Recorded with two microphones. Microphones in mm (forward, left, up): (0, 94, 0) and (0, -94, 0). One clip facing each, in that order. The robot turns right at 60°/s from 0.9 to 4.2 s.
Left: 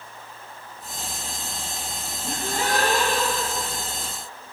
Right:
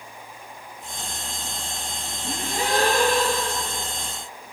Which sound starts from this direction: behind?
A gasp, at 2.2 s.